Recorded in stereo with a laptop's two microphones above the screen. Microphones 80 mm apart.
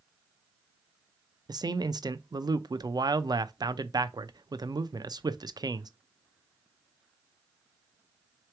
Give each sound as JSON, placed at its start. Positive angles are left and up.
{"t": 1.5, "sound": "a man speaking", "side_deg": -55, "distance_m": 0.5}